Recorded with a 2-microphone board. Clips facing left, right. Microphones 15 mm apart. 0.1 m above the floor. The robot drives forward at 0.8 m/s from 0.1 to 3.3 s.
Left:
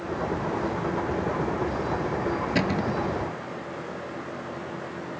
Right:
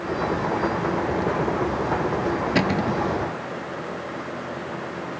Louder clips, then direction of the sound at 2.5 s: Right 4 dB; 10° right (ahead or behind).